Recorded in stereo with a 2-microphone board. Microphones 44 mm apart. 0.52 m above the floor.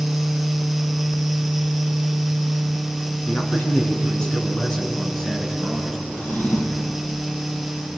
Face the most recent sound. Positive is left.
turn(degrees=45)  # may be behind; listen again after turning